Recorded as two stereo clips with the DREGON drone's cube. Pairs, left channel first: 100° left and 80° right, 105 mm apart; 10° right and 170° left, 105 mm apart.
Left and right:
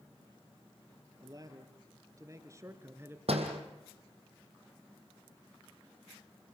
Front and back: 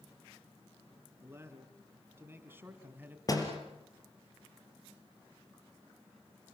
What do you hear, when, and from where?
1.2 s a man speaking: 125° right, 3 m; by 3.2 s 130° right, 1.9 m
3.3 s a door slam: 65° right, 4 m